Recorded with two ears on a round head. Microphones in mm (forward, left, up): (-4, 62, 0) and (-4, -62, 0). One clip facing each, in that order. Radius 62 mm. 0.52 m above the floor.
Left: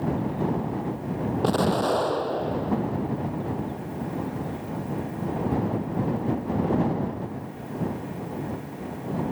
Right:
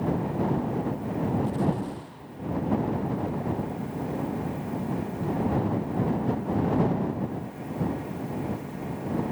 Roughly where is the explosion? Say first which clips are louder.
Left 5 dB; left.